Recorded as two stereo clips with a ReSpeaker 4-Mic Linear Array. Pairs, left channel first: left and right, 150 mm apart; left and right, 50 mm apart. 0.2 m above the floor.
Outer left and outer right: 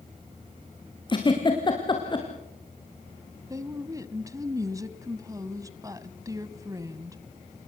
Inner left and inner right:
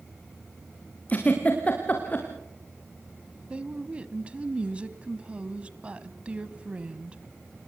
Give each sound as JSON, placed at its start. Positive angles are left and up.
{"t": 1.1, "sound": "a giggle", "side_deg": 30, "distance_m": 4.0}
{"t": 3.5, "sound": "a woman speaking", "side_deg": -25, "distance_m": 1.0}